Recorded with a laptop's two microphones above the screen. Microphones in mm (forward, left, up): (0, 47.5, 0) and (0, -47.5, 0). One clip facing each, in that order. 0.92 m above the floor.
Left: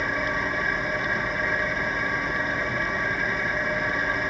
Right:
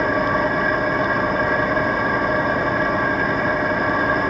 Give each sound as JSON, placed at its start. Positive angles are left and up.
{"t": 0.0, "sound": "an engine running", "side_deg": -50, "distance_m": 0.9}